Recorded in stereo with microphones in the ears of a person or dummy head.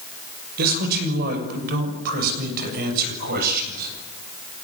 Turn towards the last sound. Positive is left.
turn(degrees=-60)  # may be behind; listen again after turning